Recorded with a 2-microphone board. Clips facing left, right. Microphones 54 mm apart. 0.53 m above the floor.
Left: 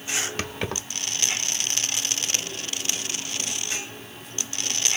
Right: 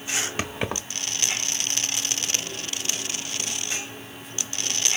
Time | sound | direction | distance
0.4 | keys jangling | 15° right (ahead or behind) | 1.3 m